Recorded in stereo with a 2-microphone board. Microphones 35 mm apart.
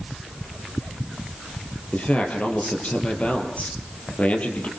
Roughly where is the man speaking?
Left.